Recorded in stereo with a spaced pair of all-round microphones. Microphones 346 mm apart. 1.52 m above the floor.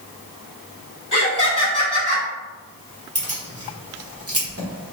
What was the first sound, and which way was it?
Laughter, 60° left (ahead or behind).